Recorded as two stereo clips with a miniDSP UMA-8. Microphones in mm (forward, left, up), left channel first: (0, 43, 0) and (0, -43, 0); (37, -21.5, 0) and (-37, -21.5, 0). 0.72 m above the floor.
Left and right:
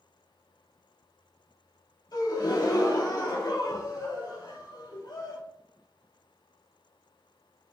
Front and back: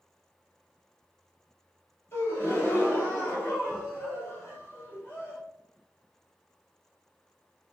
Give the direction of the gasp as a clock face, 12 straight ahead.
10 o'clock.